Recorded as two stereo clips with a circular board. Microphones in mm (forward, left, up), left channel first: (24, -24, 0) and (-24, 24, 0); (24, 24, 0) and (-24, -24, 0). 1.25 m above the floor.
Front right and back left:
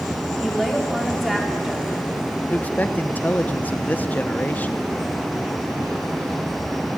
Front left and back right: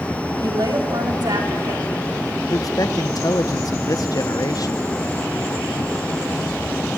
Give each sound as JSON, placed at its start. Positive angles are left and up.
{"t": 0.4, "sound": "a woman speaking", "azimuth_deg": -135, "distance_m": 3.5}
{"t": 2.5, "sound": "a man speaking", "azimuth_deg": 20, "distance_m": 0.8}